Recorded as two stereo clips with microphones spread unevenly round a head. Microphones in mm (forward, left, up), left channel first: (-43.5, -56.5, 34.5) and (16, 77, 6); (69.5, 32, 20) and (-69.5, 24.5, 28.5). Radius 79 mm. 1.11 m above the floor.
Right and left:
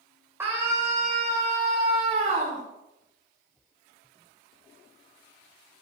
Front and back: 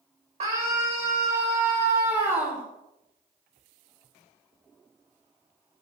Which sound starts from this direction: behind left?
A scream, at 0.4 s.